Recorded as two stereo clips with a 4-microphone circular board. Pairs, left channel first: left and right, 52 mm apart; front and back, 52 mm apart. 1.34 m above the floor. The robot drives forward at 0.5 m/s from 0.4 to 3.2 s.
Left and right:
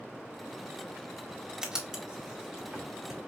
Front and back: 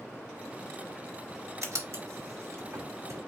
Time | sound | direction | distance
1.6 | writing | 165° right | 1.5 m